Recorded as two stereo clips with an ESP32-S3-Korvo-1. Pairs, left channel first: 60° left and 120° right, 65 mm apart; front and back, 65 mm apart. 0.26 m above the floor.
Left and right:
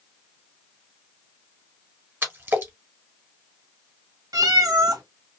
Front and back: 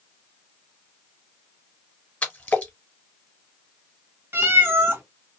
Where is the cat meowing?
125° right, 0.8 m.